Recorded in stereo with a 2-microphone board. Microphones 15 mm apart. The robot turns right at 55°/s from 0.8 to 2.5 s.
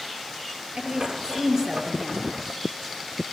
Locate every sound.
0.8 s a woman speaking: 75° right, 5 m; by 2.4 s 10° left, 5 m